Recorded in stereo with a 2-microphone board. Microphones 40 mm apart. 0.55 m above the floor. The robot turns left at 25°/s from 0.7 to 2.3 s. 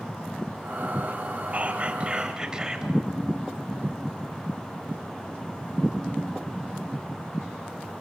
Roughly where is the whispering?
Right.